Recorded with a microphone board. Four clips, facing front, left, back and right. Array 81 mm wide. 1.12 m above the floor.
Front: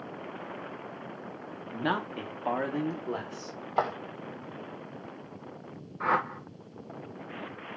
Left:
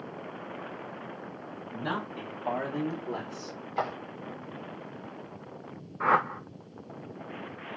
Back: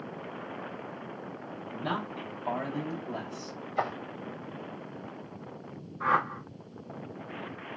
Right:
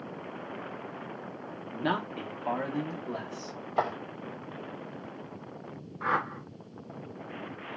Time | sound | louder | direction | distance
1.7 | a man speaking | right 3 dB, front 3 dB | 30° right | 0.9 m
3.8 | footsteps | right 2 dB, front 3 dB | 10° right | 2 m
6.0 | a whoosh | left 5 dB, back 1 dB | 70° left | 0.7 m